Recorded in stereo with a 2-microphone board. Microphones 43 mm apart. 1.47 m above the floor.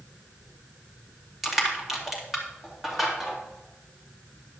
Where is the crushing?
5° right (ahead or behind), 2.5 m.